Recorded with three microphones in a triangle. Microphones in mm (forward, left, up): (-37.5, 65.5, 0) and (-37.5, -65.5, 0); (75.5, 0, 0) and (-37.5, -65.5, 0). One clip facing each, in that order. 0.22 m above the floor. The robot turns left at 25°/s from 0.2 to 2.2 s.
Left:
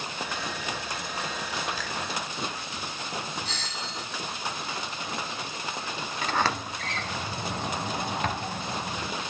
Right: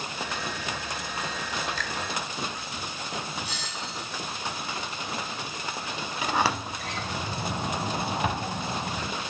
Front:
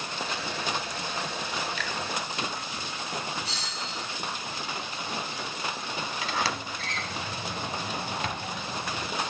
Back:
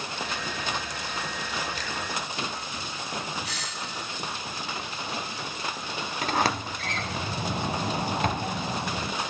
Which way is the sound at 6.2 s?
165° right.